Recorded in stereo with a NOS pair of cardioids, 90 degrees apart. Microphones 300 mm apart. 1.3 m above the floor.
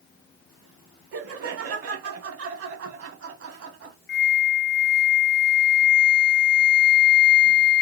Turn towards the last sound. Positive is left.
turn(degrees=35)